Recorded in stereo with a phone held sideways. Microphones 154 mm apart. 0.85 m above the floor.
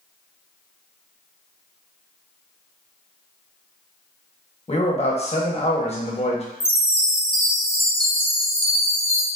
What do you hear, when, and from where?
4.7 s a man speaking: 40° left (ahead or behind), 1.1 m
6.6 s a chime: 40° left (ahead or behind), 0.7 m